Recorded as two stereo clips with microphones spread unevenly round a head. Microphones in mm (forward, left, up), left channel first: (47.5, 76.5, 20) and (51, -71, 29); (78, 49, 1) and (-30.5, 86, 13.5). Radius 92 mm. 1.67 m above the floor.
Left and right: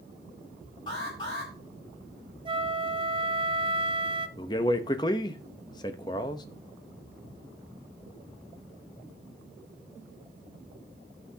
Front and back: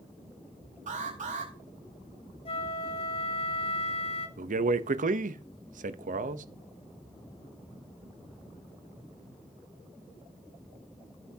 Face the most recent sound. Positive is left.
turn(degrees=160)